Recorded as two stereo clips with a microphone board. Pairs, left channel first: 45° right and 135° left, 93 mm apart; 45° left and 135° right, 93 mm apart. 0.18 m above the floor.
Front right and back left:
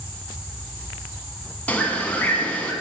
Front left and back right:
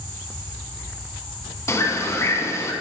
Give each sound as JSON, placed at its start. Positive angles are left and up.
{"t": 1.7, "sound": "a bird", "azimuth_deg": 20, "distance_m": 0.8}